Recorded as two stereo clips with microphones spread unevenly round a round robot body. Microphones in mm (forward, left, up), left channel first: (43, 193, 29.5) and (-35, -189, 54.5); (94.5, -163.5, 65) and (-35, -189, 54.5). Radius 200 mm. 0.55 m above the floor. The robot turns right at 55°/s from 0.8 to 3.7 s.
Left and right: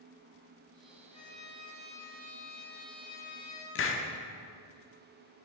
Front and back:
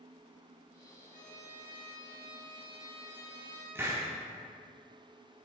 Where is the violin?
Straight ahead, 2.5 m; by 3.6 s 140° left, 2.5 m.